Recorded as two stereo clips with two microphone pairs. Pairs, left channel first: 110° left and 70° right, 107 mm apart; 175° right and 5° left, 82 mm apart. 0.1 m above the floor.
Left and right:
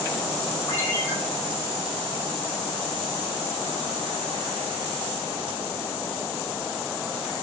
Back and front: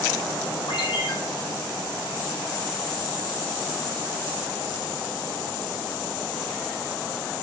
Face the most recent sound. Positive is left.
turn(degrees=175)